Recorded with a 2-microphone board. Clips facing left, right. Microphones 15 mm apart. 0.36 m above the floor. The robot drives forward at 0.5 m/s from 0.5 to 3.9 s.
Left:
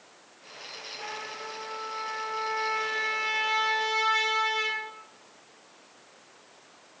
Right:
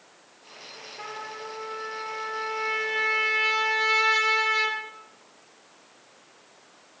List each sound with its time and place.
1.0 s a trumpet: 60° right (ahead or behind), 6 m; by 4.8 s 70° right (ahead or behind), 5.5 m